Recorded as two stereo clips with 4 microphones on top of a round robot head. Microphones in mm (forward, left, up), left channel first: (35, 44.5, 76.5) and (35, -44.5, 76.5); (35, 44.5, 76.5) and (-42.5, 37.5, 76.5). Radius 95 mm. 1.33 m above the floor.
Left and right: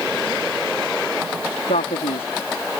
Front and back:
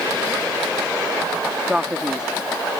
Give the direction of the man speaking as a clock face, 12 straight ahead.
8 o'clock.